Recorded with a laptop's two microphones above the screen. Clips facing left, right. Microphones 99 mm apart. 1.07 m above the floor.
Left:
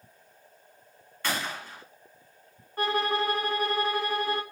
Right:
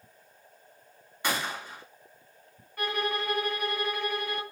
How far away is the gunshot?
About 2.5 m.